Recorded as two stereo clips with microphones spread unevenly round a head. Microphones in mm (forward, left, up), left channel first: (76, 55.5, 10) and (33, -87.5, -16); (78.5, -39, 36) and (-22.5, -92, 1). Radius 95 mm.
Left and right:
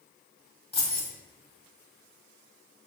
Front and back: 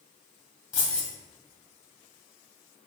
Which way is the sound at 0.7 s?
25° left.